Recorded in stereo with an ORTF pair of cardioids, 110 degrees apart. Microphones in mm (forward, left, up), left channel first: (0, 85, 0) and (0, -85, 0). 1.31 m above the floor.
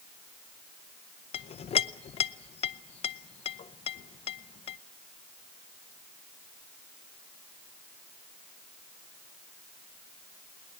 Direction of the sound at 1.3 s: 40° left.